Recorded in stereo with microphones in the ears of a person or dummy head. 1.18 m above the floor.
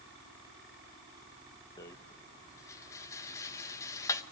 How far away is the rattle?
About 1.0 m.